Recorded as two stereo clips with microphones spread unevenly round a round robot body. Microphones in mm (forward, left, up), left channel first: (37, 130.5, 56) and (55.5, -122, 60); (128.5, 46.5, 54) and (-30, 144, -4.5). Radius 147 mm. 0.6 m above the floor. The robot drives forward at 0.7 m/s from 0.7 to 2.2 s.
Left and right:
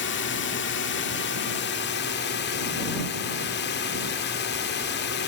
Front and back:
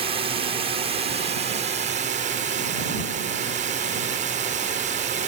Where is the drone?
120° left; by 5.3 s 135° left.